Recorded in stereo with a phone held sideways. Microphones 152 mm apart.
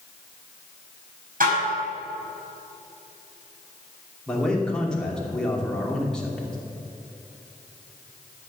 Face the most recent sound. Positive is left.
turn(degrees=5)  # may be behind; listen again after turning